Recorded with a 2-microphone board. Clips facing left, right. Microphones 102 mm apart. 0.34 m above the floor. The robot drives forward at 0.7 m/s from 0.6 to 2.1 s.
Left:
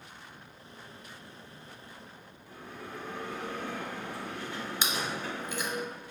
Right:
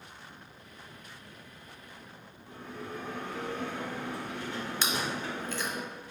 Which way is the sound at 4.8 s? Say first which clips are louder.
Right 1 dB; 15° left (ahead or behind).